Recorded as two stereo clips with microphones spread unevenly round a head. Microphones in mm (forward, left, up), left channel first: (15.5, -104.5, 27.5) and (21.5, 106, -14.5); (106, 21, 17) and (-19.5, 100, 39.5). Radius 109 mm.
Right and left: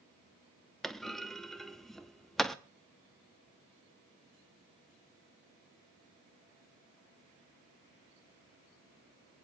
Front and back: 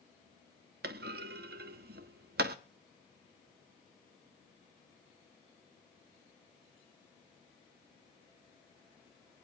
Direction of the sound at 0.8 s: 175° right.